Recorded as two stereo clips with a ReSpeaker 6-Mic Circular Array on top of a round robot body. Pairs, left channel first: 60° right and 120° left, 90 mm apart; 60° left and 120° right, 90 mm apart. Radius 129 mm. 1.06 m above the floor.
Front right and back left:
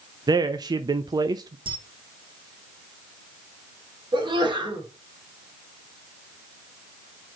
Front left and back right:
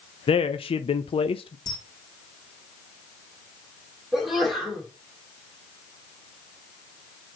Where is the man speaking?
75° left, 0.6 m.